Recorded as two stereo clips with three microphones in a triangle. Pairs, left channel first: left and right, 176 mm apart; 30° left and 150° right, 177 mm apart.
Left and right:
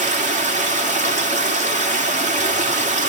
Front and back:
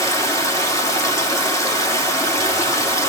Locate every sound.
0.0 s running water: 45° right, 3 m